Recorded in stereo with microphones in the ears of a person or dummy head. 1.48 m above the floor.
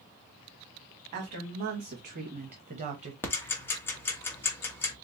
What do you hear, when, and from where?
1.1 s a woman speaking: 45° right (ahead or behind), 2 m; by 3.1 s 30° right (ahead or behind), 1.1 m
3.2 s ticking: 10° left (ahead or behind), 1.1 m